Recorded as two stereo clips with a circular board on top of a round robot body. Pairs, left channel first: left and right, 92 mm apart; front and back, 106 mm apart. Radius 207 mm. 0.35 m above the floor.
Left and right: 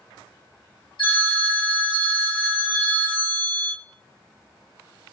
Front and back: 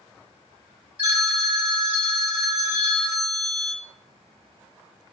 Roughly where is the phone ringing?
Left.